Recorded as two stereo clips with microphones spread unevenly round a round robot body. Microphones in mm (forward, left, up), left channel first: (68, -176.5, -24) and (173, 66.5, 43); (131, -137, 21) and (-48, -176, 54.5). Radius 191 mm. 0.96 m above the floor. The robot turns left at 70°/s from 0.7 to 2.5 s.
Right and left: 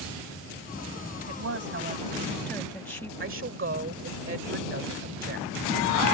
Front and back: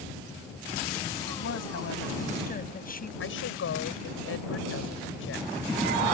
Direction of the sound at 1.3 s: 55° left.